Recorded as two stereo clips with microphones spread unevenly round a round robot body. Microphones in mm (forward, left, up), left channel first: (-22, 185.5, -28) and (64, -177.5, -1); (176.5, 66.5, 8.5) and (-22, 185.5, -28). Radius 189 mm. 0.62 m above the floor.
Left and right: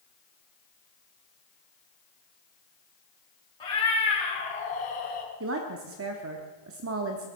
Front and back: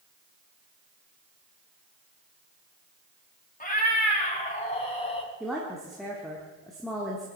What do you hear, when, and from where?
3.6 s a cat meowing: 25° left, 4 m; by 5.3 s 35° left, 3.5 m
5.4 s a woman speaking: 130° right, 1.1 m